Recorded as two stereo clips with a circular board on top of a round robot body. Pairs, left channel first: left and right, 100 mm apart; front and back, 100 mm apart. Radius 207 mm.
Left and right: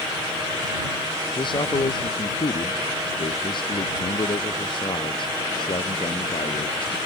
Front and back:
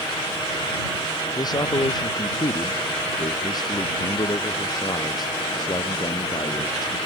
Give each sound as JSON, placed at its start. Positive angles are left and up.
{"t": 1.4, "sound": "a man speaking", "azimuth_deg": 50}